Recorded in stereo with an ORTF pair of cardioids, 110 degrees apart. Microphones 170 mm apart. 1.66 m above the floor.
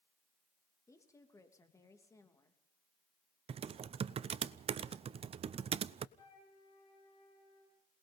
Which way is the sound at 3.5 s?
35° right.